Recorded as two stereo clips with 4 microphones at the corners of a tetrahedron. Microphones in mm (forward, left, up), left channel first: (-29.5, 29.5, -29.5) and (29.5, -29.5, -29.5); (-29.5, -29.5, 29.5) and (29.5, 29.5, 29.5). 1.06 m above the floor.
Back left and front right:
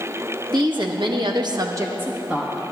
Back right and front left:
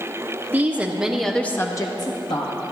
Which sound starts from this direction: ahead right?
A woman speaking, at 0.5 s.